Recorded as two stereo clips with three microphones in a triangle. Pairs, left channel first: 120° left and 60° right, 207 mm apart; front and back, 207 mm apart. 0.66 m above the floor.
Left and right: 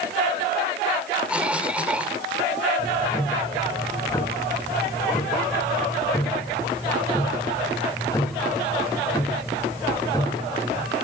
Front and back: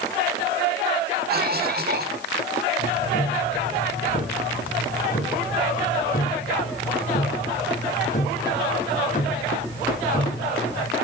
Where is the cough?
145° right, 2.5 m.